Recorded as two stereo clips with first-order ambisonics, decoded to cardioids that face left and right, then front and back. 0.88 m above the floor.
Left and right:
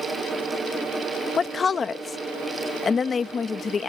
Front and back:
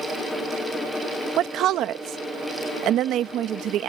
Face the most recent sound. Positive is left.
turn(degrees=150)